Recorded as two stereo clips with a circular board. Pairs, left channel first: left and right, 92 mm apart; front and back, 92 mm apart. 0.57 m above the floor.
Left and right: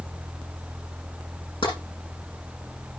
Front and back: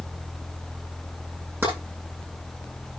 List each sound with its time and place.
1.6 s tapping: 110° left, 7 m